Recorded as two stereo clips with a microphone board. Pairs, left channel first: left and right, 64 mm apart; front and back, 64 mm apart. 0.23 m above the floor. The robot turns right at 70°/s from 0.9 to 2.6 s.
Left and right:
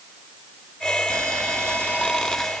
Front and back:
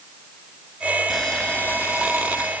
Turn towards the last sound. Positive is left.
turn(degrees=15)